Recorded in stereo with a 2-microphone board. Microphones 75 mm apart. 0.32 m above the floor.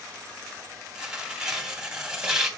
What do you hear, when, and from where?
0.9 s tearing paper: 10° right (ahead or behind), 2 m